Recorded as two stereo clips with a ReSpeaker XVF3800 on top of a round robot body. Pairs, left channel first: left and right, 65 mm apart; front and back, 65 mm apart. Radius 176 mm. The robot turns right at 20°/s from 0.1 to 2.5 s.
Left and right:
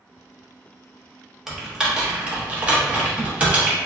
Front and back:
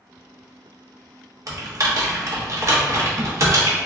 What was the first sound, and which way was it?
Typing on a keyboard, 175° right.